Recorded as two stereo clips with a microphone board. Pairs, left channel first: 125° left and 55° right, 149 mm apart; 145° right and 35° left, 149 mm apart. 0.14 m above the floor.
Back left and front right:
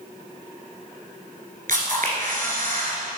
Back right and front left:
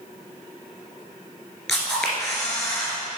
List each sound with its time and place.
1.7 s a camera shutter: 60° right, 1.9 m